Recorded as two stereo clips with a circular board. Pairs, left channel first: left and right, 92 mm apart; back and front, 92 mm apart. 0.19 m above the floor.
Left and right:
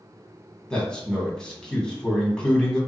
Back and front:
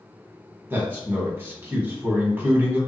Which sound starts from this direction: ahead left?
A man speaking, at 0.7 s.